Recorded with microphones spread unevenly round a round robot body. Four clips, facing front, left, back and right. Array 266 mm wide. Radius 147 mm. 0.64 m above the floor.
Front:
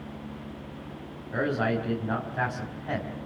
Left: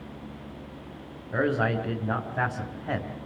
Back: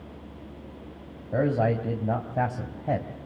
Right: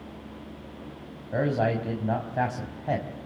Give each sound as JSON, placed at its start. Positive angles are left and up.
{"t": 1.3, "sound": "a man speaking", "azimuth_deg": -165, "distance_m": 5.0}